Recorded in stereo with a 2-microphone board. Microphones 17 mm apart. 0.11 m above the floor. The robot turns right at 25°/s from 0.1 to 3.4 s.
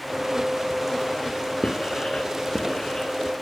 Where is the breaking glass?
I don't hear breaking glass.